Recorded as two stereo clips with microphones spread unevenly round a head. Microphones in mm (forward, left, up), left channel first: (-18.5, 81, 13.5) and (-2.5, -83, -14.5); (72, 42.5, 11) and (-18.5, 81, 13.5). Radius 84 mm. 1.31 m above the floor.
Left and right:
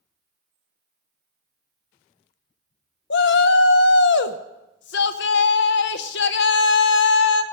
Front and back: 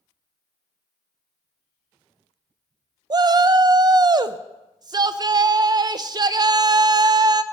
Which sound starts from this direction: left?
A shout, at 3.1 s.